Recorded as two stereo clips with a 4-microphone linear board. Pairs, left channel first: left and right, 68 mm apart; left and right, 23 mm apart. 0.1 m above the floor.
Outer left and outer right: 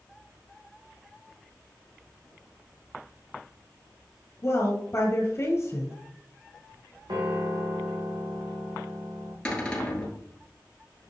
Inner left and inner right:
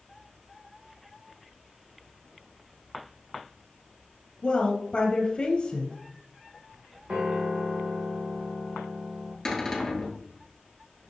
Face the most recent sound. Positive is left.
turn(degrees=15)  # may be behind; listen again after turning